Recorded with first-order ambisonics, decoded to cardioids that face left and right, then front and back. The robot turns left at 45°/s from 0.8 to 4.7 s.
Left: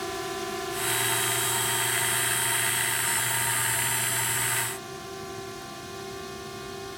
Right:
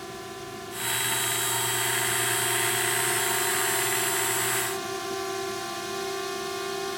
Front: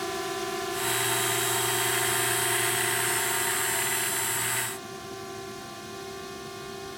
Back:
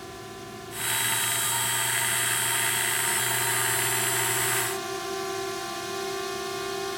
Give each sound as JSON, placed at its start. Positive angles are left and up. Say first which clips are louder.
{"t": 0.0, "sound": "a drone", "louder": "left 6 dB, front 9 dB", "azimuth_deg": 35}